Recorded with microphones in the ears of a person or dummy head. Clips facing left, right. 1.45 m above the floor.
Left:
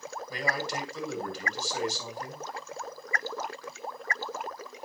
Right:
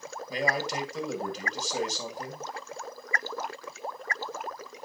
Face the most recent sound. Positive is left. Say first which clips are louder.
# right 3 dB
turn(degrees=-20)  # may be behind; listen again after turning